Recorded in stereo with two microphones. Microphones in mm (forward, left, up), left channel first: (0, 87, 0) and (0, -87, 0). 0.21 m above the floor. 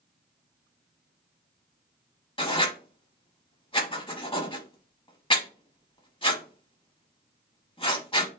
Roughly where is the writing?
Left.